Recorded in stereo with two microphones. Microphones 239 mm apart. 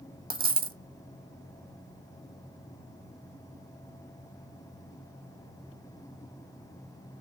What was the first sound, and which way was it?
A dropped coin, 40° right (ahead or behind).